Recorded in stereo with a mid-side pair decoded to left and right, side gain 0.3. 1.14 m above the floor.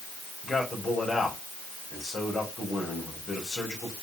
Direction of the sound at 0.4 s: 45° left.